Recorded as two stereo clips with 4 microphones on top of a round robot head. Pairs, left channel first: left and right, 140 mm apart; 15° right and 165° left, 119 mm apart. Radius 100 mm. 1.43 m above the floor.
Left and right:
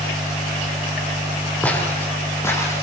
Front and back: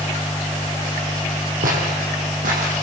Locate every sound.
1.6 s footsteps: 170° left, 5 m; by 2.8 s 160° left, 5 m